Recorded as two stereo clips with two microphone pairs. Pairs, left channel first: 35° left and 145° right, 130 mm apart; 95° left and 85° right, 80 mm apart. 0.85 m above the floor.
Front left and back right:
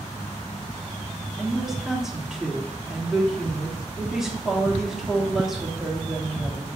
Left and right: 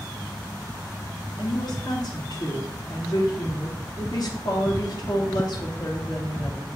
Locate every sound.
1.4 s a woman speaking: 130° left, 1.2 m